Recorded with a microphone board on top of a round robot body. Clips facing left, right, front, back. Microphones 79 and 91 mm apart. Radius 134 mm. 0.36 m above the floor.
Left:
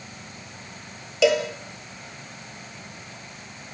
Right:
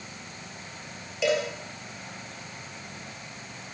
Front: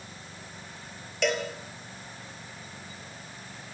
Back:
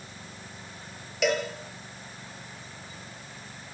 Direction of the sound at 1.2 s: 95° left.